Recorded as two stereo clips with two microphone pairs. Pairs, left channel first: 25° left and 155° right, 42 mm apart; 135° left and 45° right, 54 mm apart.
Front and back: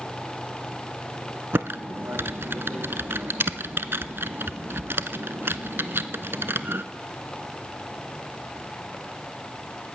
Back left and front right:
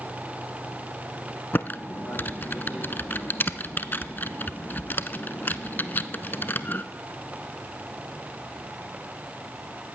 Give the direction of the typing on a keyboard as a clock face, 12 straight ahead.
6 o'clock.